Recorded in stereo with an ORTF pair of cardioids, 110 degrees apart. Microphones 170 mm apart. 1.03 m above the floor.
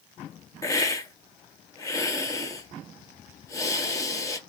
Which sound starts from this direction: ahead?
A hiss, at 0.6 s.